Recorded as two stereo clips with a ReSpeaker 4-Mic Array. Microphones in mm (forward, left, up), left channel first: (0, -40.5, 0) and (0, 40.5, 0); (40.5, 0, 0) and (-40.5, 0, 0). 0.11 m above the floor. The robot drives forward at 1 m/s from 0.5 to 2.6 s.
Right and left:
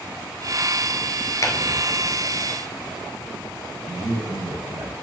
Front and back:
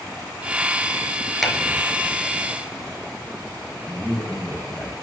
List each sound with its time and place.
1.4 s a clap: 90° right, 1.2 m; by 1.6 s 100° right, 1.2 m
3.9 s a man speaking: 90° left, 4 m